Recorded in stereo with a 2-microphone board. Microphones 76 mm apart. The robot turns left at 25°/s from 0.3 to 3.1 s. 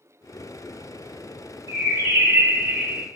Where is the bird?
130° right, 0.9 m; by 3.1 s 165° right, 0.9 m.